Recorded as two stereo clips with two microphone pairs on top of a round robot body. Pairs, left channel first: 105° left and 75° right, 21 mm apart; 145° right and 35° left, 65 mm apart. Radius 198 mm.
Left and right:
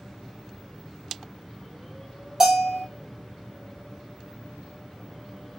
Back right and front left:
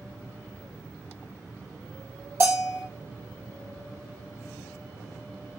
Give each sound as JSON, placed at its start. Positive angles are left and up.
{"t": 2.4, "sound": "a bell", "azimuth_deg": -10, "distance_m": 2.5}